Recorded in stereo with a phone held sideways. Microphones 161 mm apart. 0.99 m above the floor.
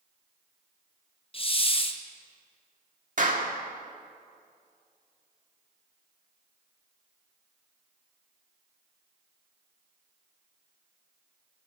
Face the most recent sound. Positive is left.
turn(degrees=-60)  # may be behind; listen again after turning